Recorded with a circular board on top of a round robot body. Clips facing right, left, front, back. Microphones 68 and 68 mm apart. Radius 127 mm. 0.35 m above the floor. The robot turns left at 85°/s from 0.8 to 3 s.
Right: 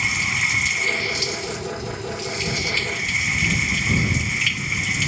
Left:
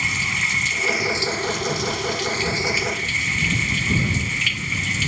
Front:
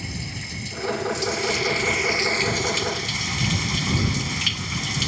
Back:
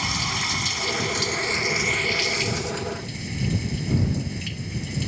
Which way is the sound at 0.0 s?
175° right.